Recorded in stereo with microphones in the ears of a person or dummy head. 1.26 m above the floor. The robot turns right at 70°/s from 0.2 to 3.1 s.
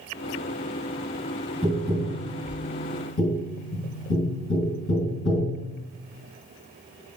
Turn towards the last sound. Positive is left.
turn(degrees=70)  # may be behind; listen again after turning